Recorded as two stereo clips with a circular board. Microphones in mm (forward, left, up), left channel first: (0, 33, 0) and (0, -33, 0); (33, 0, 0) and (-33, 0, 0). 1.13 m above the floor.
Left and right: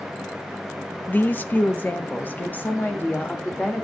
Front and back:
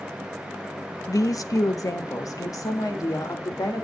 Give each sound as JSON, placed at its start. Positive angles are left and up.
{"t": 1.1, "sound": "a woman speaking", "azimuth_deg": 25, "distance_m": 0.6}